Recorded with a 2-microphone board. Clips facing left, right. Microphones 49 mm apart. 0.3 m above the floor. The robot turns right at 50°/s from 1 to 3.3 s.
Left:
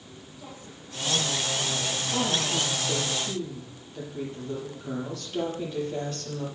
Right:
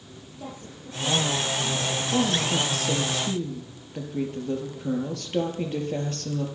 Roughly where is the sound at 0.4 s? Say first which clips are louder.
Right 6 dB; behind right.